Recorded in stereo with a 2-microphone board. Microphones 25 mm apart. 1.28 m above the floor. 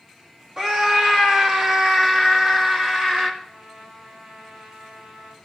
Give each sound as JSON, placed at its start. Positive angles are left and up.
{"t": 0.6, "sound": "a scream", "side_deg": -35, "distance_m": 2.0}
{"t": 3.4, "sound": "a trumpet", "side_deg": -70, "distance_m": 5.5}